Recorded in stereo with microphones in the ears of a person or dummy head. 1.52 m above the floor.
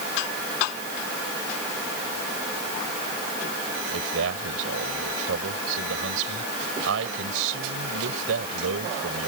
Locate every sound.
3.9 s a man speaking: 80° right